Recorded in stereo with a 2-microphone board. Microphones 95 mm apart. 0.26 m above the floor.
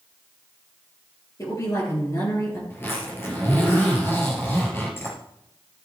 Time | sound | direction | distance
1.4 | a woman speaking | 35° left (ahead or behind) | 5 m
2.7 | a zipper | 25° left (ahead or behind) | 4 m